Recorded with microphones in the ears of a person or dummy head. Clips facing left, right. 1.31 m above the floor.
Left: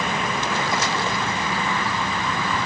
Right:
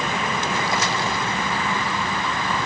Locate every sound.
Only background noise.